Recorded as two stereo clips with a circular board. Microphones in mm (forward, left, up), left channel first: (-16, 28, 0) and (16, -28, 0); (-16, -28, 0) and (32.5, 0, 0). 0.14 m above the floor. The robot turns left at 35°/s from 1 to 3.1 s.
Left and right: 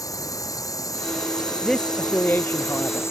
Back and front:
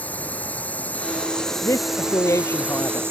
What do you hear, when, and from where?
0.0 s a drone: 145° left; by 3.1 s 75° left
1.6 s a man speaking: 155° right; by 3.0 s 155° left